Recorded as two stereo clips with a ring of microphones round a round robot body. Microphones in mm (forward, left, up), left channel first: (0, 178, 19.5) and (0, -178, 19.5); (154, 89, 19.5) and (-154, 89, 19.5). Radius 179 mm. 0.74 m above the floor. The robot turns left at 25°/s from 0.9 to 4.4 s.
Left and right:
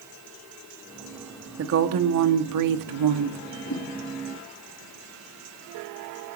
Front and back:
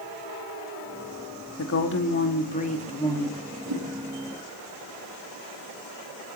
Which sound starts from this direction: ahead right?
A woman speaking, at 1.6 s.